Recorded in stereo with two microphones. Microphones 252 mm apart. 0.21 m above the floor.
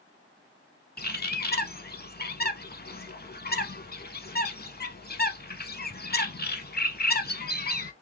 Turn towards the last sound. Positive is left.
turn(degrees=40)  # may be behind; listen again after turning